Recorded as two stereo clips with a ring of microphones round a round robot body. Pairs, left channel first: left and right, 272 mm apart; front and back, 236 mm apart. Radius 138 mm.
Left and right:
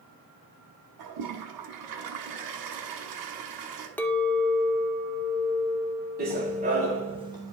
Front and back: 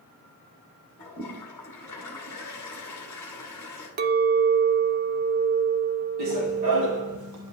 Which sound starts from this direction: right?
A toilet flushing, at 1.0 s.